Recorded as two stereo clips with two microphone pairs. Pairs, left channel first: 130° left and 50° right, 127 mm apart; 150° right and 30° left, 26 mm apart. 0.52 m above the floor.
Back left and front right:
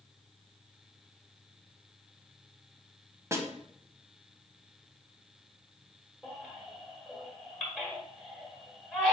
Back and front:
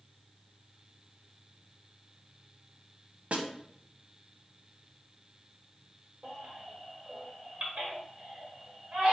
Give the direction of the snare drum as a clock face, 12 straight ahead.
11 o'clock.